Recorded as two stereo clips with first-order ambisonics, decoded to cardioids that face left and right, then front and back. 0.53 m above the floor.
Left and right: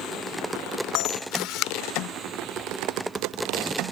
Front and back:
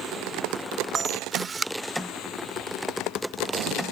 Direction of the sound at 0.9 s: 110° left.